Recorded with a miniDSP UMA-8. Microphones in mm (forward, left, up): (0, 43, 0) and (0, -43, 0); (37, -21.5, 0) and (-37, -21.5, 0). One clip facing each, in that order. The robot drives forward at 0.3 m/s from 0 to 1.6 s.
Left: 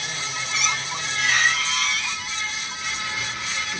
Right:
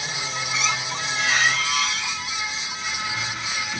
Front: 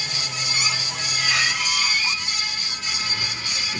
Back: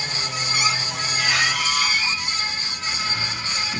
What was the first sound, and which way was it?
A squeak, 160° right.